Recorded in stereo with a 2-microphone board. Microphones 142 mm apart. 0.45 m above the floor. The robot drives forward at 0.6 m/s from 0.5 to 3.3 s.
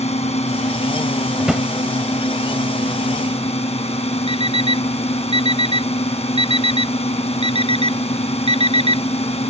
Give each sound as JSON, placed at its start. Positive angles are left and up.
{"t": 0.0, "sound": "a drone", "side_deg": 45}
{"t": 1.4, "sound": "a drawer", "side_deg": -5}
{"t": 4.3, "sound": "an alarm clock", "side_deg": -40}